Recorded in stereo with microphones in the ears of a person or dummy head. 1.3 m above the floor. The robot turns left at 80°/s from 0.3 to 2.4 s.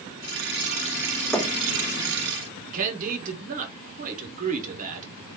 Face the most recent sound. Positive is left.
turn(degrees=-40)  # may be behind; listen again after turning